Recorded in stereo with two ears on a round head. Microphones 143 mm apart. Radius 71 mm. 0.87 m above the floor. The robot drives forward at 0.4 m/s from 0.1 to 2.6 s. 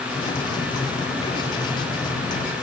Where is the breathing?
I don't hear breathing.